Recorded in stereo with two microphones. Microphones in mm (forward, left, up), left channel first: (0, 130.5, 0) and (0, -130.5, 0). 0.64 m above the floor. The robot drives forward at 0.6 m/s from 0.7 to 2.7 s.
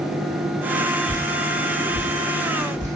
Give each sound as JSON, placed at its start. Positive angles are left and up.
{"t": 1.1, "sound": "dripping", "side_deg": -20, "distance_m": 1.4}